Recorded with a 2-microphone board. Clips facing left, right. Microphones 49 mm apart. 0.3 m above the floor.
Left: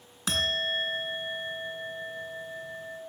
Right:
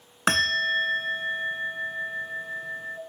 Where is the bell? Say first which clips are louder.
Right 6 dB; 60° right (ahead or behind), 0.7 m.